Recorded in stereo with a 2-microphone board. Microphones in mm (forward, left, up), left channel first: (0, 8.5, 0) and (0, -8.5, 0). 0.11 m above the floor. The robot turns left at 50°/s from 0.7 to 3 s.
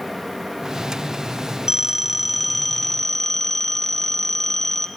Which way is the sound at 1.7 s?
140° right.